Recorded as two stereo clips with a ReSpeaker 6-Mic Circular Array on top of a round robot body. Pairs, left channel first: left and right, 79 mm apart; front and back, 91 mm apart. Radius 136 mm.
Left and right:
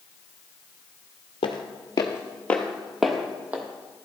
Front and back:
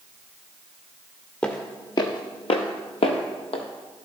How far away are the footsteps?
About 0.7 m.